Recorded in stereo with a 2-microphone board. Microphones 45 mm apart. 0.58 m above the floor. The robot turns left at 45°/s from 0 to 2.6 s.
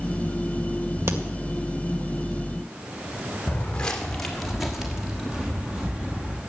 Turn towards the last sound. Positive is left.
turn(degrees=-20)  # may be behind; listen again after turning